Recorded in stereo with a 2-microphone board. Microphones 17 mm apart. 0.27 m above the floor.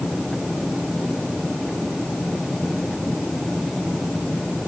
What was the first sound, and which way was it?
Only background noise.